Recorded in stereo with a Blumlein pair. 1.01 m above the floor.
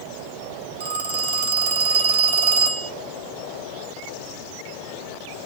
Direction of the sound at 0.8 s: 60° right.